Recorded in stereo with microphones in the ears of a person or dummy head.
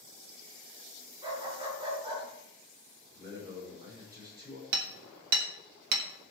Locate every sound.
1.2 s a dog barking: 20° right (ahead or behind), 5 m
3.1 s a man speaking: 15° right (ahead or behind), 5.5 m
4.7 s hammering: 60° right (ahead or behind), 1.5 m